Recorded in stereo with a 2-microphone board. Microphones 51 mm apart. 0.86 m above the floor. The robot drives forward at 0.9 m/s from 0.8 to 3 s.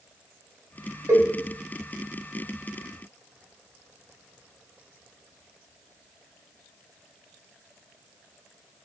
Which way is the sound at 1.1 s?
70° right (ahead or behind).